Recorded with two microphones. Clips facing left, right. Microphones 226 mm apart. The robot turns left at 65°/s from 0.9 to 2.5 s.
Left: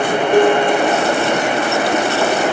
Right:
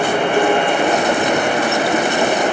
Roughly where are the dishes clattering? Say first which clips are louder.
Left 6 dB; left.